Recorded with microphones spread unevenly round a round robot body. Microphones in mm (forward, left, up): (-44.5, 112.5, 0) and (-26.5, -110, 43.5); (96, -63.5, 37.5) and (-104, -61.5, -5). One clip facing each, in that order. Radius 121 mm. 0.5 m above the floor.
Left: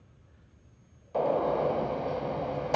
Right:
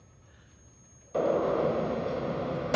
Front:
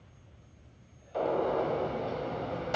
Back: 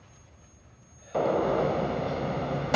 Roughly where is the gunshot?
Behind right.